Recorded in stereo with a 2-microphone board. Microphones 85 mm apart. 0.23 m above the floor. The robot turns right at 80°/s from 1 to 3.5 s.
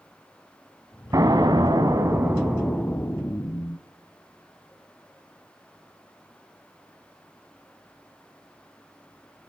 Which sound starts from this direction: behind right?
An explosion, at 1.1 s.